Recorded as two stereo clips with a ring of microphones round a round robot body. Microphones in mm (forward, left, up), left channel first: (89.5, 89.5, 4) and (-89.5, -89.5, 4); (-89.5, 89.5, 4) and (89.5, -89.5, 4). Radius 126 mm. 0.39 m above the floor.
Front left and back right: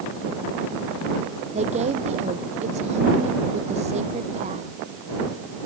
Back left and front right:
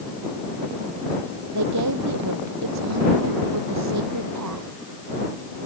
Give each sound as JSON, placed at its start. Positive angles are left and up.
{"t": 1.5, "sound": "a woman speaking", "azimuth_deg": -70}